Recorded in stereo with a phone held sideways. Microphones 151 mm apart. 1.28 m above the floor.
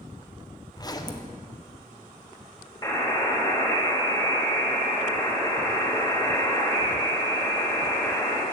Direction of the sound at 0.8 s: 25° left (ahead or behind).